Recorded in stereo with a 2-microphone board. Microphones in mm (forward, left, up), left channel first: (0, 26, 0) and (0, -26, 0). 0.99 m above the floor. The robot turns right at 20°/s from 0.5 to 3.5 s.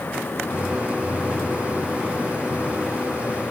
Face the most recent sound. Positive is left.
No sound to turn to.